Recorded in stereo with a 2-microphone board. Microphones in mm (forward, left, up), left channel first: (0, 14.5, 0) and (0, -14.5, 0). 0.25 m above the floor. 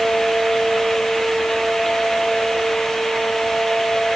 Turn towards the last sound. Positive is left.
No sound to turn to.